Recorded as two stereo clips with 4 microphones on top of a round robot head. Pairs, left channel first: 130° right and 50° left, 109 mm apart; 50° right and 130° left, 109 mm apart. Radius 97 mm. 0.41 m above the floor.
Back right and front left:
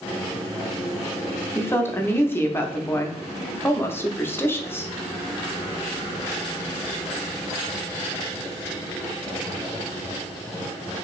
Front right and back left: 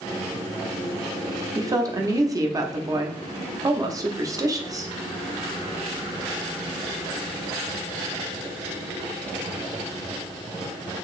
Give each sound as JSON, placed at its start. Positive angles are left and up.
{"t": 1.6, "sound": "a woman speaking", "azimuth_deg": 170, "distance_m": 1.0}